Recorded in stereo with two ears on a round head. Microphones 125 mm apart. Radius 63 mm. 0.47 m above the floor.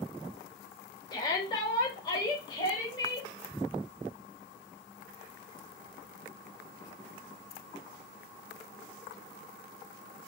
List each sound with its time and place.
1.1 s a shout: 30° left (ahead or behind), 1.2 m